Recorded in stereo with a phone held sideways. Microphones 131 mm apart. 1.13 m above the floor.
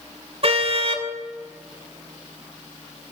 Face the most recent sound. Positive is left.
turn(degrees=-50)  # may be behind; listen again after turning